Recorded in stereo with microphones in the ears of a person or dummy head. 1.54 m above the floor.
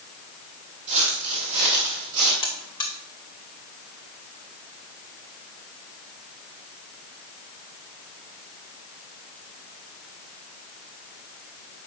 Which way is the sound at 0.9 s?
30° right (ahead or behind).